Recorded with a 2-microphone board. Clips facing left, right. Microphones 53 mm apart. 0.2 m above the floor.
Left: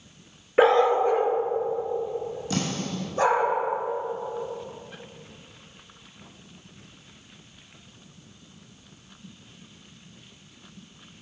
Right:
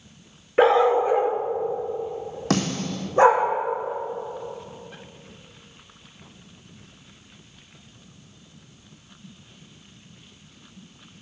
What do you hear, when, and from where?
0.6 s a dog barking: 5° left (ahead or behind), 0.6 m; by 3.5 s 30° right (ahead or behind), 2 m
2.5 s a snare drum: 70° right (ahead or behind), 1.9 m